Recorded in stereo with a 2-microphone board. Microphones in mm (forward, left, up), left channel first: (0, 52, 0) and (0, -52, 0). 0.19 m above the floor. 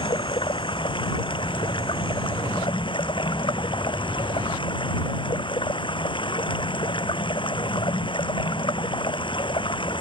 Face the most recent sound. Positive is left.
turn(degrees=60)  # may be behind; listen again after turning